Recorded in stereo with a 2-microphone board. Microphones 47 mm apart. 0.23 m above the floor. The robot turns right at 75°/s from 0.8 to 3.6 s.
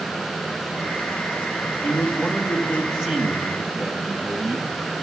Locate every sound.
1.8 s a man speaking: 100° left, 2 m; by 4.7 s 125° right, 2 m